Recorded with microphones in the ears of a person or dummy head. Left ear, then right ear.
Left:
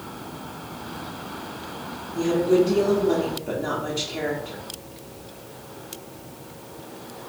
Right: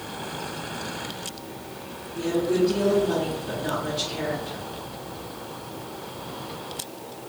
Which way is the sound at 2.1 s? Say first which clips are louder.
Left 4 dB; 40° left (ahead or behind).